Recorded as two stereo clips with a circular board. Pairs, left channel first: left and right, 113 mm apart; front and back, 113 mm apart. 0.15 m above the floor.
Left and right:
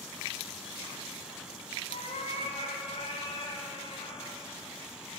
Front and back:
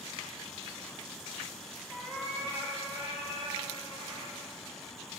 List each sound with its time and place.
1.9 s a cat meowing: 95° left, 3 m; by 4.4 s 145° left, 3 m